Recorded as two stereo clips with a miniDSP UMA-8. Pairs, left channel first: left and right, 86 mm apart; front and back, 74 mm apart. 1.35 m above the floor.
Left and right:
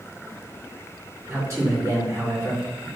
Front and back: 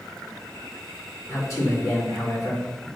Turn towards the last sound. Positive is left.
turn(degrees=-40)